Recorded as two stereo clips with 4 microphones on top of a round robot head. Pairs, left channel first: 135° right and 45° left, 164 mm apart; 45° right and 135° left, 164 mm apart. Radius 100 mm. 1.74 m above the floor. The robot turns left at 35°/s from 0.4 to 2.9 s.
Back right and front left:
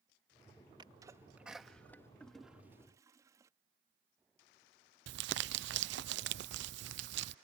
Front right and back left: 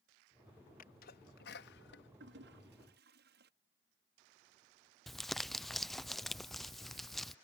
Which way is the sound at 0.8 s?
15° right.